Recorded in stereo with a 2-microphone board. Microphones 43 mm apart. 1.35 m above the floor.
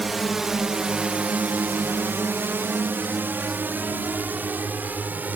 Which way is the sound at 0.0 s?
Centre (ahead or behind).